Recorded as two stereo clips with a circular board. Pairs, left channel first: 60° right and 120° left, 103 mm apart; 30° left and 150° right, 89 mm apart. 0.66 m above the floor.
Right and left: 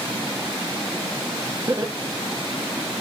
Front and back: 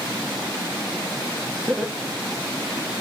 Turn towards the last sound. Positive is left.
turn(degrees=65)